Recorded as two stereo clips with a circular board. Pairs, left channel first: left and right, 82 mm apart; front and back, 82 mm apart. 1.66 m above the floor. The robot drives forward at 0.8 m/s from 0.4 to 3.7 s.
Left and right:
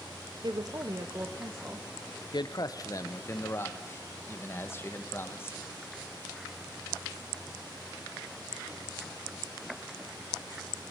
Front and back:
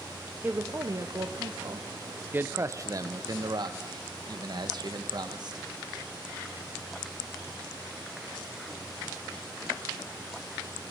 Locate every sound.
0.4 s a woman speaking: 115° right, 0.8 m; by 1.9 s 155° right, 1.6 m
2.3 s a man speaking: 115° left, 1.0 m; by 5.6 s 150° left, 1.7 m